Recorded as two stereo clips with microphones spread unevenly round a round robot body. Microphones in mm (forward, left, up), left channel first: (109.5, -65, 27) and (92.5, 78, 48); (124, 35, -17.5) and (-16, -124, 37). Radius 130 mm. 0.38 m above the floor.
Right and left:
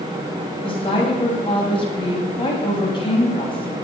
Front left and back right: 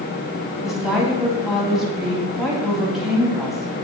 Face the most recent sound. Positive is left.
turn(degrees=-35)